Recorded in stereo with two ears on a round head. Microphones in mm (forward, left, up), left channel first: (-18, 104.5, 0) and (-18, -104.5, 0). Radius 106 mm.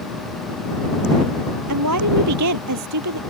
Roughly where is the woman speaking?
Right.